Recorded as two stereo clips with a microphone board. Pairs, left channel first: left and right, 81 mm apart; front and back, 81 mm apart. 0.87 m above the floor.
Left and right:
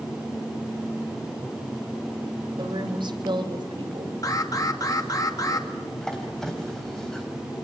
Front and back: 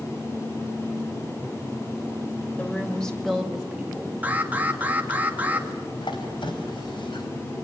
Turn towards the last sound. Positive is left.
turn(degrees=5)